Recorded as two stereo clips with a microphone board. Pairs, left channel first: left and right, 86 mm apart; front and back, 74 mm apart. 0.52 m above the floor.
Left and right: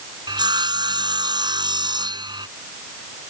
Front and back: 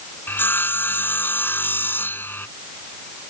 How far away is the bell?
I don't hear a bell.